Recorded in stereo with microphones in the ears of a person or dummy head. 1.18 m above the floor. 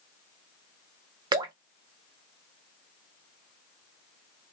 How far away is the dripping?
About 0.5 m.